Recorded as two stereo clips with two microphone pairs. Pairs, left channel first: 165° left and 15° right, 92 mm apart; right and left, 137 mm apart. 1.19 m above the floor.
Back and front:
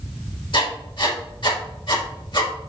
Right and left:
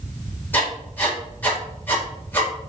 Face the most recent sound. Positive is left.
turn(degrees=-170)